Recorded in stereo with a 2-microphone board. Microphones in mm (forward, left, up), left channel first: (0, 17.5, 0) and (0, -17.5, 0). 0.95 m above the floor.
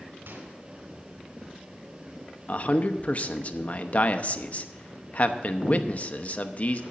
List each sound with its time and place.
0.3 s a microwave: 80° right, 3 m
2.5 s a man speaking: 40° left (ahead or behind), 0.8 m